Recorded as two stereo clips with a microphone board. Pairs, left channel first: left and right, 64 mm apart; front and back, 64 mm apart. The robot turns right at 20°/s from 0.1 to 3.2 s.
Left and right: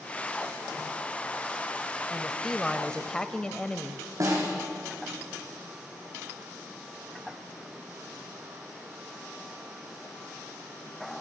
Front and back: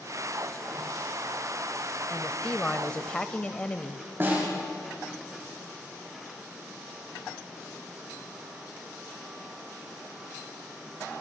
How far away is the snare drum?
About 8 m.